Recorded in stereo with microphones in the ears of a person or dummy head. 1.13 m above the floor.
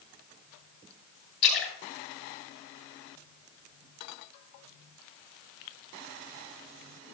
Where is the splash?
75° left (ahead or behind), 5.5 m.